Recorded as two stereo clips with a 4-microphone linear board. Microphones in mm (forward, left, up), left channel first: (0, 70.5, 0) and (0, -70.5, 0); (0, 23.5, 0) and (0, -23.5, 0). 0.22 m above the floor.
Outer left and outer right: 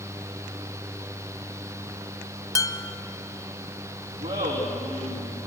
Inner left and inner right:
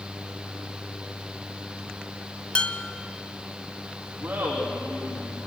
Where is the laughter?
65° right (ahead or behind), 8.5 m.